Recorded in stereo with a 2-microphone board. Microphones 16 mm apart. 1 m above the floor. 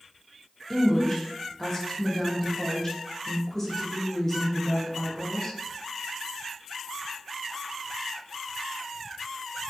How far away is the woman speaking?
About 0.8 m.